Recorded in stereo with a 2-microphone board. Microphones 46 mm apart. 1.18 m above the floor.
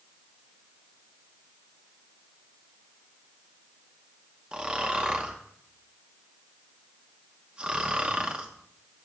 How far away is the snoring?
About 1.0 m.